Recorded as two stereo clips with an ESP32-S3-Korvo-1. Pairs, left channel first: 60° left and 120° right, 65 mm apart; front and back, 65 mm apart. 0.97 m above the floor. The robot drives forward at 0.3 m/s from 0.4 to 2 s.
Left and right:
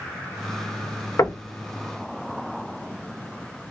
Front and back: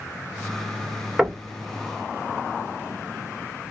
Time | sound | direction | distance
1.2 | knocking | 100° left | 0.6 m